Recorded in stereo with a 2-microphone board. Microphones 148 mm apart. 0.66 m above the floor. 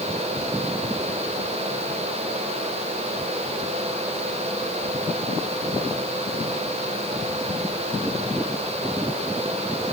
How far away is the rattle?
No rattle in this recording.